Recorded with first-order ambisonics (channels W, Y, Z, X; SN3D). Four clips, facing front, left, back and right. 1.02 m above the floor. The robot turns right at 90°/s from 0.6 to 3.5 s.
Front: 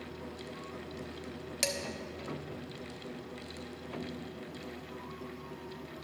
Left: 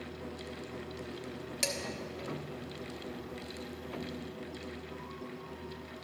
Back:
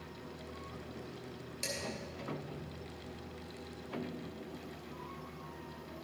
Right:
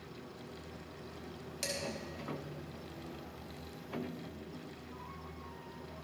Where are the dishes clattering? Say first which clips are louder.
Left 4 dB, front 6 dB; 20° left, 1.2 m; by 1.8 s 35° left, 1.2 m.